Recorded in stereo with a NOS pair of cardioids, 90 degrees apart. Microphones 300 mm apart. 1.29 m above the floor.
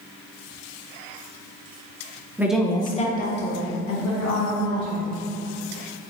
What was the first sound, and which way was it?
A woman speaking, 10° right.